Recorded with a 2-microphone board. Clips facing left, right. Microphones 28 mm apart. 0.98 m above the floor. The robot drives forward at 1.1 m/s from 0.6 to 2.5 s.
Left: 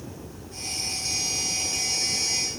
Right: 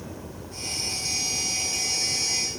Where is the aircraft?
55° right (ahead or behind).